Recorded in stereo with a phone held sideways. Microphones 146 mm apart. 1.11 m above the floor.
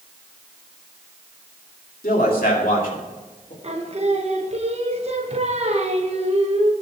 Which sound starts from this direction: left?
A man speaking, at 2.0 s.